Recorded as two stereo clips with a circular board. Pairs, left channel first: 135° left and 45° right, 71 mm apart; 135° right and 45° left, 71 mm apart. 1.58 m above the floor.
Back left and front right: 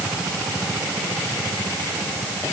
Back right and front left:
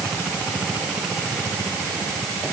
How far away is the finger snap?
I don't hear a finger snap.